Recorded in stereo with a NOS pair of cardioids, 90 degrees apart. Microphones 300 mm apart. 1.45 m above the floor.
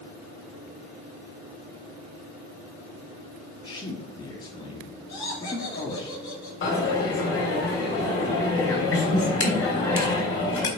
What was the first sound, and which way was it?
A man speaking, 25° left.